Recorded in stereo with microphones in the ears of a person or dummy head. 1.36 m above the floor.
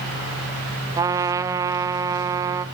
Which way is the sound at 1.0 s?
15° right (ahead or behind).